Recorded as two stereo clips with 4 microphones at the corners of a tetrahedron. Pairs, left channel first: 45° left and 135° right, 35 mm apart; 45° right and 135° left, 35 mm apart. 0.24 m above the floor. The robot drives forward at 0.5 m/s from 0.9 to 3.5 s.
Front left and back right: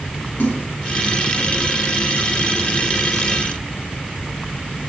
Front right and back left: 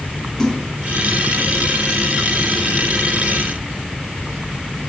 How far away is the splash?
About 1.1 m.